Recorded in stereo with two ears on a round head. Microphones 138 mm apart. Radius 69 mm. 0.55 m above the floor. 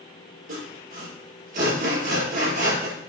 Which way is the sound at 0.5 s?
60° right (ahead or behind).